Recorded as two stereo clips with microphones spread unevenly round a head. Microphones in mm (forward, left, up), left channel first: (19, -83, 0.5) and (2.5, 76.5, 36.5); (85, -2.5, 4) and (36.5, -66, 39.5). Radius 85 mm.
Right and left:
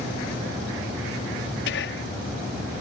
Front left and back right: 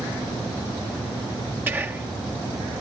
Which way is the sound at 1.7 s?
70° right.